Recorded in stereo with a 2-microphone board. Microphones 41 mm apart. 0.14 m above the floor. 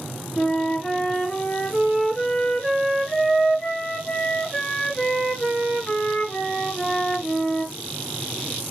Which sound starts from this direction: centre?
A flute, at 0.4 s.